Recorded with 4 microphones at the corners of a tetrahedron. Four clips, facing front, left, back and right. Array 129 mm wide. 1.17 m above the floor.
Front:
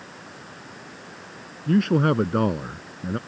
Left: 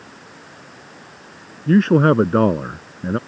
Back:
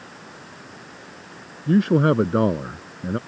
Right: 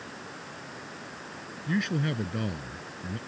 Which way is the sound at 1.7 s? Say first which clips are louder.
Left 16 dB, back 2 dB; 100° left.